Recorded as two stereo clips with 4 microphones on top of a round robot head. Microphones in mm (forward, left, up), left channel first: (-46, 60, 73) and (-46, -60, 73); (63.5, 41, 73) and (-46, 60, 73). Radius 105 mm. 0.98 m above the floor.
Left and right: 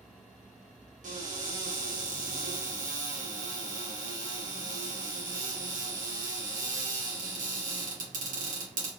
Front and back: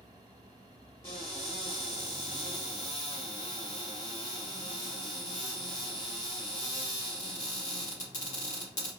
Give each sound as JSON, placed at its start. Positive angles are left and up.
{"t": 1.0, "sound": "a cupboard door", "azimuth_deg": -75, "distance_m": 1.8}